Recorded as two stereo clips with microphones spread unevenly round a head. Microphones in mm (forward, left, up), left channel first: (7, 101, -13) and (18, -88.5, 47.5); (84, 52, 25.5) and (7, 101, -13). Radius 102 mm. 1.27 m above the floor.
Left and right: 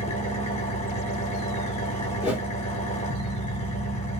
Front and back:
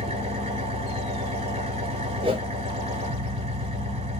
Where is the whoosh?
170° right, 2 m.